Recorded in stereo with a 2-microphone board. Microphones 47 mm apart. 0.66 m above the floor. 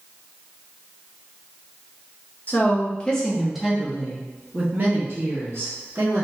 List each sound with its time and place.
2.5 s a woman speaking: 35° left (ahead or behind), 1.0 m; by 6.2 s 65° right (ahead or behind), 1.7 m